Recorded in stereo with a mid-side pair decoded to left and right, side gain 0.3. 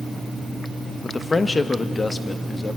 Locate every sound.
1.0 s a man speaking: 45° left, 1.1 m